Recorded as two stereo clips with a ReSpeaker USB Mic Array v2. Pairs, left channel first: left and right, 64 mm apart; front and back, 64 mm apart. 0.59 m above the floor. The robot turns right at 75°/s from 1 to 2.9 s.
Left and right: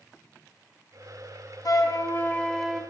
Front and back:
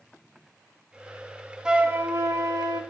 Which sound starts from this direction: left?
A flute, at 1.6 s.